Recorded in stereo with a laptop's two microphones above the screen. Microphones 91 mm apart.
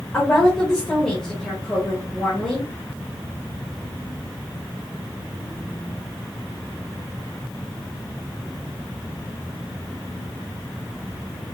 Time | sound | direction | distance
0.1 | a woman speaking | 5° left (ahead or behind) | 1.6 m